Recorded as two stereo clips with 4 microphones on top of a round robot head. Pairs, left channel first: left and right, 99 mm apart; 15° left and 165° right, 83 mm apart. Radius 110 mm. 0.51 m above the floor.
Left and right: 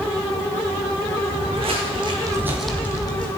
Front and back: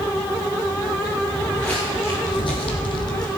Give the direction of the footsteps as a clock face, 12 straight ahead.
2 o'clock.